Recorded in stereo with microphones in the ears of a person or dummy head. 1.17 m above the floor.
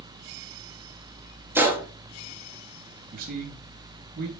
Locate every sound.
1.6 s a gunshot: 15° right (ahead or behind), 1.9 m
3.1 s a man speaking: 55° right (ahead or behind), 3 m